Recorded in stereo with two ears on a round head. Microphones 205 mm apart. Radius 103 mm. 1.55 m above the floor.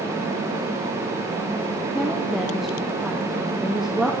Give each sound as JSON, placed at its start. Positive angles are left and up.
{"t": 1.9, "sound": "a woman speaking", "side_deg": 0, "distance_m": 1.0}